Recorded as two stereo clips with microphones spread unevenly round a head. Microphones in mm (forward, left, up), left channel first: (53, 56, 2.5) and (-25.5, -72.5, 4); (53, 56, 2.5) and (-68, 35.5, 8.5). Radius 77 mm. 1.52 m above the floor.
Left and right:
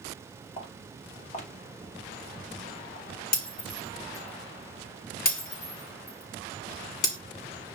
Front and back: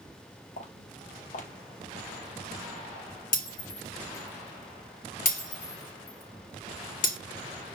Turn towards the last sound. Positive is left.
turn(degrees=25)